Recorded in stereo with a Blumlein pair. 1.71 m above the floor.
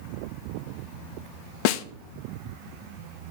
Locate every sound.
1.6 s a snare drum: 45° left, 0.6 m